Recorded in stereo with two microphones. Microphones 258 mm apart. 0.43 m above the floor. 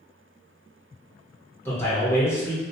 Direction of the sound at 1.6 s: 10° left (ahead or behind).